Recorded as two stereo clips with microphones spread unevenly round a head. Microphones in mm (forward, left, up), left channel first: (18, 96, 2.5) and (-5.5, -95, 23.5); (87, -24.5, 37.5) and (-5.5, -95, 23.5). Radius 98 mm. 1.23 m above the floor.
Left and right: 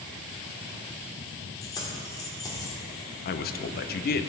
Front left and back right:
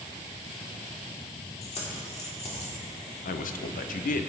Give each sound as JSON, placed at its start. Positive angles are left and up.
{"t": 1.6, "sound": "keys jangling", "azimuth_deg": 10, "distance_m": 2.0}
{"t": 3.2, "sound": "a man speaking", "azimuth_deg": 40, "distance_m": 0.7}